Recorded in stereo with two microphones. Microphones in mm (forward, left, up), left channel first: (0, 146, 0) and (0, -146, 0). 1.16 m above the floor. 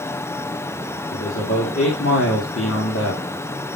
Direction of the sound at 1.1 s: 45° left (ahead or behind).